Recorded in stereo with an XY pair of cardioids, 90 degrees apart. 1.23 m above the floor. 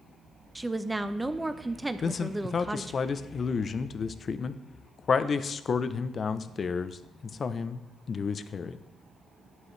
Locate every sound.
0.6 s a woman speaking: 15° right, 0.5 m
2.0 s a man speaking: 45° left, 0.5 m